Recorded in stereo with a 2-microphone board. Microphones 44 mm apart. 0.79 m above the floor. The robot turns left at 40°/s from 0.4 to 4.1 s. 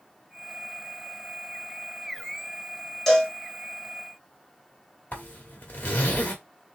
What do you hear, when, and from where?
3.1 s a cowbell: 5° left (ahead or behind), 1.6 m; by 3.3 s 5° right (ahead or behind), 1.6 m
5.1 s a zipper: 30° left (ahead or behind), 1.4 m